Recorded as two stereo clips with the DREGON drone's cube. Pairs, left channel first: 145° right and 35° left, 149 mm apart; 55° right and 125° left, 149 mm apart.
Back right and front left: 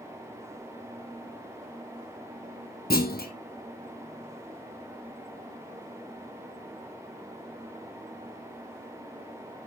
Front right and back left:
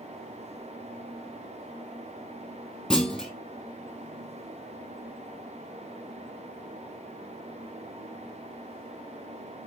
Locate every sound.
2.9 s a clunk: 140° right, 1.8 m